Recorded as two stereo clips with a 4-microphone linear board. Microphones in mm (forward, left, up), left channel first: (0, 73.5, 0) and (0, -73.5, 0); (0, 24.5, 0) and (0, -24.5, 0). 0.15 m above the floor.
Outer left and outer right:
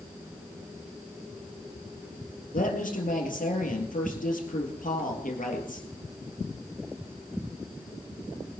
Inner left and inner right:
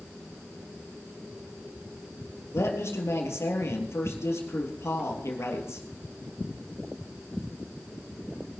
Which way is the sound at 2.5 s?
70° left (ahead or behind).